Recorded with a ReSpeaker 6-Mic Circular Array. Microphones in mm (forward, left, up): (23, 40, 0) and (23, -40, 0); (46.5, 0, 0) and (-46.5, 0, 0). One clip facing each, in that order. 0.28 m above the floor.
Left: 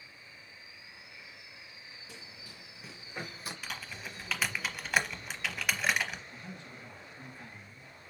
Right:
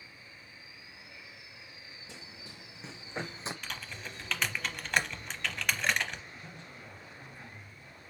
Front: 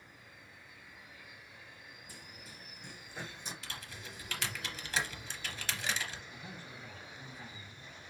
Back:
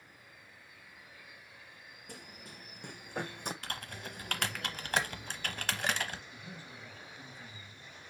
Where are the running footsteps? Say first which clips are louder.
Right 3 dB, back 6 dB; 155° right, 1.7 m.